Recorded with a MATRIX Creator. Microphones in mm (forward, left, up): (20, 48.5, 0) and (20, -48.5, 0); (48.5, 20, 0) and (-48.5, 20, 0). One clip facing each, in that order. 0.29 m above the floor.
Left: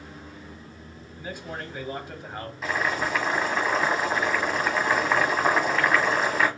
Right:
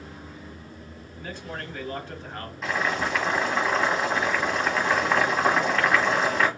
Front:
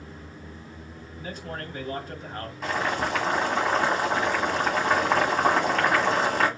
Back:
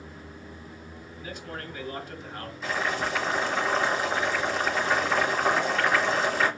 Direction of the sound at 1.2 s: 15° left.